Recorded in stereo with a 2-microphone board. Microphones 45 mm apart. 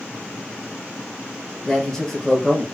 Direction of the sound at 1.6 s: 10° left (ahead or behind).